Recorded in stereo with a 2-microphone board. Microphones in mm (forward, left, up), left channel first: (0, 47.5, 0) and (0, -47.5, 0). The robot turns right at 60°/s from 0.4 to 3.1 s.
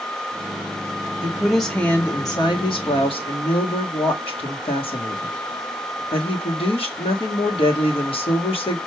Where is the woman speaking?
20° right, 1.4 m; by 8.8 s 90° left, 1.4 m.